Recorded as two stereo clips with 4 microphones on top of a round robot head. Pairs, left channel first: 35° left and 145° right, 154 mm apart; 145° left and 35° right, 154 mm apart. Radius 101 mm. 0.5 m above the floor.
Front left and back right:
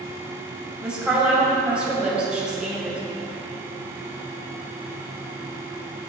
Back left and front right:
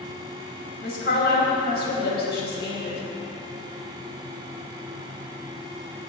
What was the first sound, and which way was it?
A woman speaking, 130° left.